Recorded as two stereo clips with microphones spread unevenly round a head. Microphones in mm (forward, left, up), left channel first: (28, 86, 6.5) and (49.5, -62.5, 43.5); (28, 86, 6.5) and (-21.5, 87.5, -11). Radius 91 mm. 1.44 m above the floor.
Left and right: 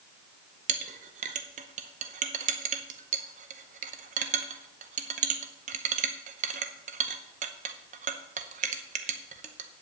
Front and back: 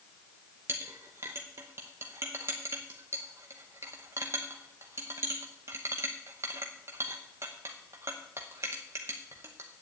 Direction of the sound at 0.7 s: 115° right.